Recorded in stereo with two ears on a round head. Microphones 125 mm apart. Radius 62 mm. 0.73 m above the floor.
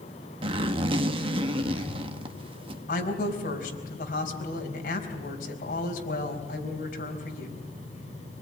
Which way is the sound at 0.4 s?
35° right (ahead or behind).